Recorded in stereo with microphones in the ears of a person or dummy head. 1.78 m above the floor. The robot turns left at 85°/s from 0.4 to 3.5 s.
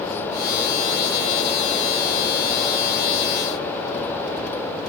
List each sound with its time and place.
Only background noise.